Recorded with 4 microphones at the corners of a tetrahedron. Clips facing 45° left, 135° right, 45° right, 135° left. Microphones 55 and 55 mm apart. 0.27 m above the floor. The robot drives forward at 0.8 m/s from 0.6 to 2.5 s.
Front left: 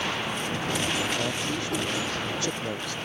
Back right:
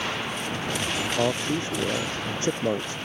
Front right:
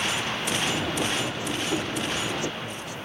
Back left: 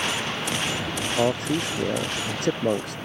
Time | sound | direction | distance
1.2 | a man speaking | 165° left | ?